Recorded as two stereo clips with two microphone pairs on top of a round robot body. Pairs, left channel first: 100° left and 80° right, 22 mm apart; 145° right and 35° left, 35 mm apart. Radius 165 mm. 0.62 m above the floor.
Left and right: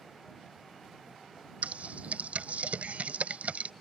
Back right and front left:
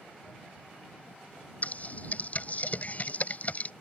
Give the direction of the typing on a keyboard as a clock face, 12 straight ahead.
3 o'clock.